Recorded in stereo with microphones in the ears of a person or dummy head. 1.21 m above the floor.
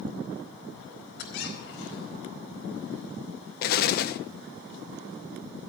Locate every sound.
1.2 s a squeak: 75° left (ahead or behind), 4.5 m
3.6 s an explosion: 50° left (ahead or behind), 1.0 m